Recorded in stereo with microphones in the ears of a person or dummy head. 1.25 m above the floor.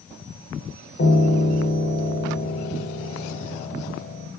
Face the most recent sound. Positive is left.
turn(degrees=55)  # may be behind; listen again after turning